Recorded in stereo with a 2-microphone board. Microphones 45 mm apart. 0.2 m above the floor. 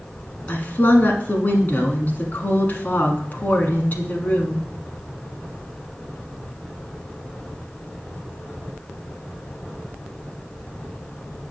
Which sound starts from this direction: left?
A woman speaking, at 0.5 s.